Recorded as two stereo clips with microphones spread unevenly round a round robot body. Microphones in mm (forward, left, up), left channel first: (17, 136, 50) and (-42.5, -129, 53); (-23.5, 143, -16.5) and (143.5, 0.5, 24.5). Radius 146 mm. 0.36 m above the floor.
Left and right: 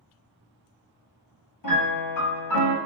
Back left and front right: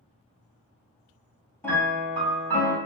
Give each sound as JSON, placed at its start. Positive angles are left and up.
{"t": 1.6, "sound": "a piano", "azimuth_deg": 55, "distance_m": 1.5}